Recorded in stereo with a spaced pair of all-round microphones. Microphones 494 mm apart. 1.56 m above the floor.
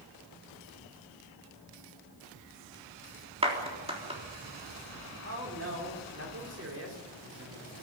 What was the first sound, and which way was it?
A clap, 10° right (ahead or behind).